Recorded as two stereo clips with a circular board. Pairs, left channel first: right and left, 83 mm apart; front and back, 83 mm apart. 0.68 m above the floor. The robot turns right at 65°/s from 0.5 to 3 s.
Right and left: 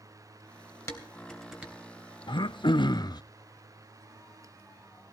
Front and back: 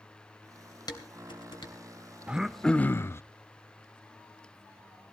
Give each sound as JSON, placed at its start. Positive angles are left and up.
{"t": 0.9, "sound": "dishes clattering", "azimuth_deg": -35, "distance_m": 3.0}
{"t": 2.3, "sound": "throat clearing", "azimuth_deg": -105, "distance_m": 0.5}